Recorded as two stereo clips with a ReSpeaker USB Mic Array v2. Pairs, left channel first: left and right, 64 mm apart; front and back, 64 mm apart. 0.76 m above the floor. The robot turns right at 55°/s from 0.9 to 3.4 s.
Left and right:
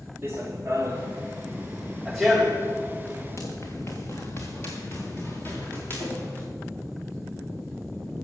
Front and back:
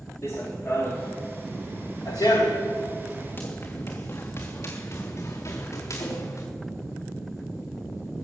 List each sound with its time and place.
0.2 s running footsteps: 40° right, 2.5 m; by 6.5 s 30° left, 4 m